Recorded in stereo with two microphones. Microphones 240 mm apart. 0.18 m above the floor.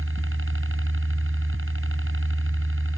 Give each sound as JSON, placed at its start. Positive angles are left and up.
{"t": 0.0, "sound": "a helicopter", "side_deg": -55}